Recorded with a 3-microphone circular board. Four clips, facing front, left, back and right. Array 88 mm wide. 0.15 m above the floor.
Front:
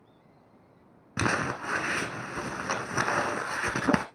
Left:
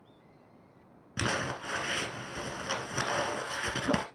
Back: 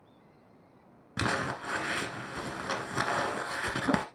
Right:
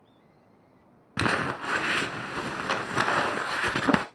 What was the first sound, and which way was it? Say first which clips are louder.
Crumpling: right 6 dB, front 3 dB; 65° right.